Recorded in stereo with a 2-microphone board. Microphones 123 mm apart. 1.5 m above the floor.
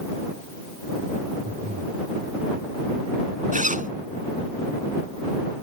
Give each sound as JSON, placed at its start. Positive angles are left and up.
{"t": 1.4, "sound": "breathing", "side_deg": -75}
{"t": 3.5, "sound": "a zipper", "side_deg": -75}